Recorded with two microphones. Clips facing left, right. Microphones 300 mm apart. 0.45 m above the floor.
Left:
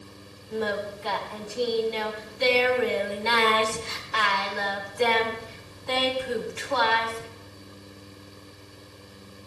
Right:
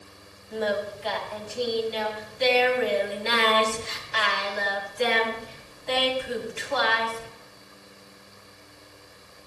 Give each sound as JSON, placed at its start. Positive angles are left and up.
{"t": 0.5, "sound": "singing", "side_deg": 60, "distance_m": 2.5}